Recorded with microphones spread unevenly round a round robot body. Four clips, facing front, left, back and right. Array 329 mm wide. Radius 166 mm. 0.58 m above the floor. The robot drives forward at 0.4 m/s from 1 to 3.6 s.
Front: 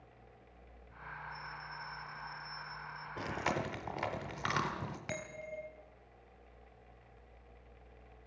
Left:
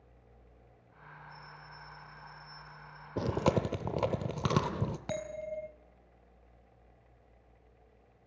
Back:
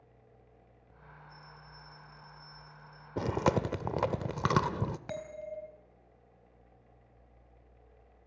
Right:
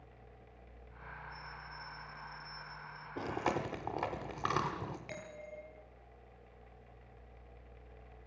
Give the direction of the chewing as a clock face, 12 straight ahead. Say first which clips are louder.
Left 6 dB, back 8 dB; 8 o'clock.